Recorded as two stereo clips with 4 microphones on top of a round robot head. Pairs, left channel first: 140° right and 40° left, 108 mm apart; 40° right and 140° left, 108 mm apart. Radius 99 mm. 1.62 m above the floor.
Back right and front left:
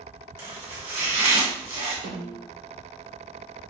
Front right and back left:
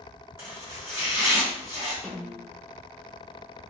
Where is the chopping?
75° left, 1.3 m.